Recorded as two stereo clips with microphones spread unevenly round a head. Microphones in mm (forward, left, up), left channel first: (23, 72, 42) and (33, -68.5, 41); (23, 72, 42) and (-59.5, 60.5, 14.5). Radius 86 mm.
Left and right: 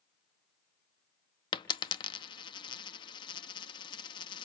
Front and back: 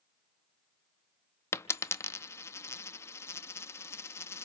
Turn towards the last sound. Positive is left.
turn(degrees=40)